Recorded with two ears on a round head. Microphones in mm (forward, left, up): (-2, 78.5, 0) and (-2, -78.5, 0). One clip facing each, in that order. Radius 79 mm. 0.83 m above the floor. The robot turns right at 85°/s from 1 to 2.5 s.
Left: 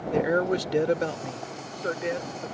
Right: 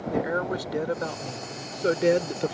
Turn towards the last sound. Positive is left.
turn(degrees=-85)